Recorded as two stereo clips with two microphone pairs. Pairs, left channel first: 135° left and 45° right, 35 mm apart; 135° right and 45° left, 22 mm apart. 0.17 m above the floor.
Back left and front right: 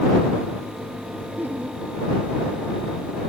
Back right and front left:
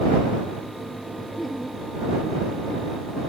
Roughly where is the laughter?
Ahead right.